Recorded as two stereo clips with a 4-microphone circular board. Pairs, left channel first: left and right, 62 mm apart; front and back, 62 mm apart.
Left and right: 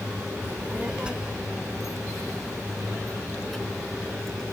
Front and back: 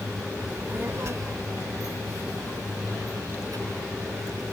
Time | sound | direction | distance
0.4 | a child speaking | 105° right | ?